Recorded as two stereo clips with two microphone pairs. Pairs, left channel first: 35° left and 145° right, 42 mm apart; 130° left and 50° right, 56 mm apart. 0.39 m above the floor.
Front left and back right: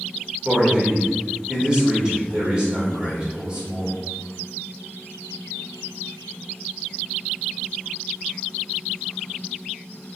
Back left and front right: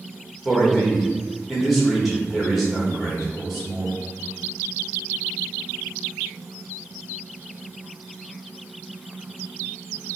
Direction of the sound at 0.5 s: 135° right.